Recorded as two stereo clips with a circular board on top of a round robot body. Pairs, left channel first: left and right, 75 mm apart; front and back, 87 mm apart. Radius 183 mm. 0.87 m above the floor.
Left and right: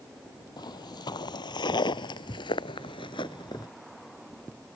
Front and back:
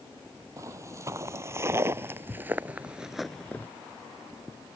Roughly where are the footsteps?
Behind left.